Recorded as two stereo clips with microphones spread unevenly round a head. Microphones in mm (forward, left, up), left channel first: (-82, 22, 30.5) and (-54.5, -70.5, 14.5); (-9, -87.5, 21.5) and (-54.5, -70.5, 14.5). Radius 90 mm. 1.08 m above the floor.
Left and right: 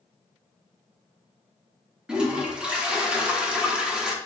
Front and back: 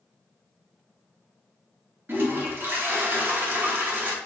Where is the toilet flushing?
160° right, 0.8 m.